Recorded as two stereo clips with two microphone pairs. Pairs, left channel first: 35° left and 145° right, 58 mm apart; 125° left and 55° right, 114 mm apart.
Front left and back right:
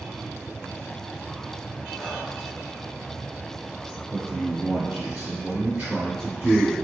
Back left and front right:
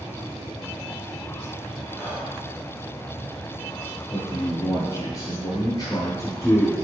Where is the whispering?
120° left, 1.1 m.